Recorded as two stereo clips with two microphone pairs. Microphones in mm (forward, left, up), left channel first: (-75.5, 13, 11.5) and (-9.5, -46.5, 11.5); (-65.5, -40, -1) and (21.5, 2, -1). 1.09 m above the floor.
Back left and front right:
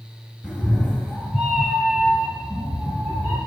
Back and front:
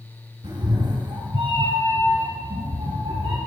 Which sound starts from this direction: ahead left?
A cat meowing, at 0.4 s.